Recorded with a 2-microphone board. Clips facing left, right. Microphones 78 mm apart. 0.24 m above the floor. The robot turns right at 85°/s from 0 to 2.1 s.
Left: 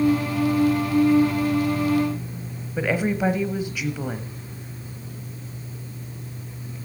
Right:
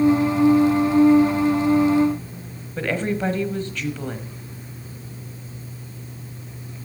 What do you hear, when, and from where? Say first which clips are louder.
2.8 s a woman speaking: left 1 dB; 10° left (ahead or behind), 1.0 m